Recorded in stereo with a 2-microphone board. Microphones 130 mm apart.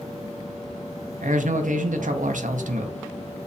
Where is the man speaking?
80° right, 0.6 m.